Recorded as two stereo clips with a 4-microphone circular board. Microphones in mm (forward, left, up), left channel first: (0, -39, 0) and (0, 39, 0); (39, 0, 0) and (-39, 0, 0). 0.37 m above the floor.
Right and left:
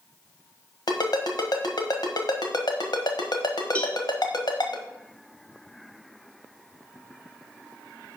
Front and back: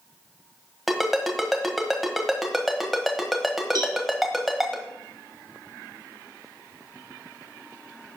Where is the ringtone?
95° right, 1.5 m.